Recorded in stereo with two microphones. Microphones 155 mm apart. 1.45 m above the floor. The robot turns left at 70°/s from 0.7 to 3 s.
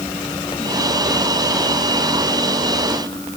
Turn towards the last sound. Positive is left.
No sound to turn to.